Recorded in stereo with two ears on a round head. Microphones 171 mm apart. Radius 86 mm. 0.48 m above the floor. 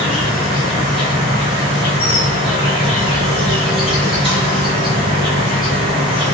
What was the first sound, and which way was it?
An insect, 30° right (ahead or behind).